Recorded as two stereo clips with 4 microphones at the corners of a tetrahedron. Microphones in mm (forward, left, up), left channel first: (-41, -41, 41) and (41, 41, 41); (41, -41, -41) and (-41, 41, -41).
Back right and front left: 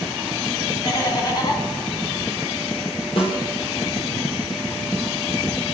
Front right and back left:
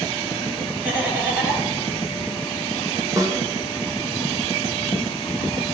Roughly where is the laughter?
Behind.